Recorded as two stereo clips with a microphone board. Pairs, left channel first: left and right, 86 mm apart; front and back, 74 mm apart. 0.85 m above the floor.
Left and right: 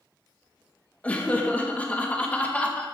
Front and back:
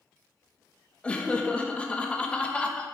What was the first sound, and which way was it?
Laughter, 45° left.